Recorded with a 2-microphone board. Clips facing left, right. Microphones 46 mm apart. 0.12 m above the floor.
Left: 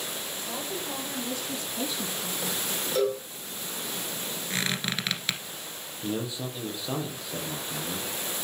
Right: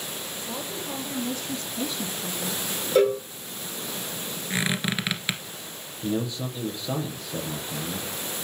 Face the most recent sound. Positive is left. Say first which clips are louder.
# right 4 dB
turn(degrees=10)  # may be behind; listen again after turning